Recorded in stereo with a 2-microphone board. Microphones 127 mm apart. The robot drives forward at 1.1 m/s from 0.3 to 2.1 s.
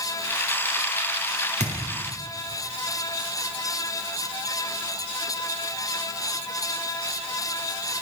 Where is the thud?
80° right, 3.5 m; by 1.8 s 75° right (ahead or behind), 3.5 m.